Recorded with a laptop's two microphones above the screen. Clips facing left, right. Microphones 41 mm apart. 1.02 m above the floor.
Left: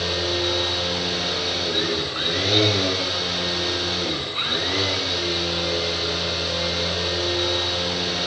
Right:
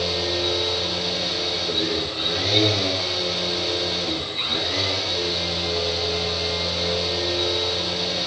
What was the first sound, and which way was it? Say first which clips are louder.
A machine running: even; 50° left (ahead or behind).